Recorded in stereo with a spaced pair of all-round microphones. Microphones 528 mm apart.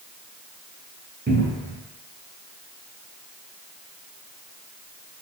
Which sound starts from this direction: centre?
A cupboard door, at 1.3 s.